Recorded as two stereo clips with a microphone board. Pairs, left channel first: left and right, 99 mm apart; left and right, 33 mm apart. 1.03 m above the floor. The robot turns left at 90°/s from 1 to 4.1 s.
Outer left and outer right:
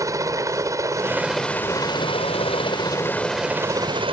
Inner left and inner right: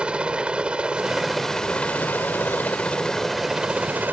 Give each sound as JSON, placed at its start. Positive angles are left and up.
{"t": 0.0, "sound": "a helicopter", "side_deg": -35}